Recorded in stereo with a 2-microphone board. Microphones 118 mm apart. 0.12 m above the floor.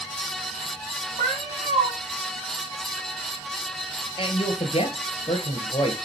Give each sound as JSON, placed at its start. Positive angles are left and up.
{"t": 1.2, "sound": "a cat meowing", "side_deg": -75, "distance_m": 3.5}
{"t": 4.2, "sound": "a man speaking", "side_deg": 50, "distance_m": 2.0}